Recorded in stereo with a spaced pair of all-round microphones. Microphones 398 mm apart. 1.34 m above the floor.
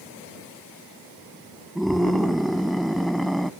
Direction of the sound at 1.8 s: Centre (ahead or behind).